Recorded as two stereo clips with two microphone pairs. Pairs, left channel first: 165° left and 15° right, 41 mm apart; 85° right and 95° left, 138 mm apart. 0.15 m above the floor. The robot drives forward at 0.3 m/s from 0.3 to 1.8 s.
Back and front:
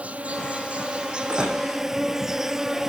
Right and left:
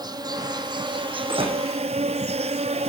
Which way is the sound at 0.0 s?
35° left.